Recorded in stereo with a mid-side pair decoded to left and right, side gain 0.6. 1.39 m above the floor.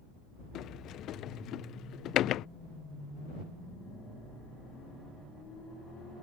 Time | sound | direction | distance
0.6 | a sliding door | 55° left | ?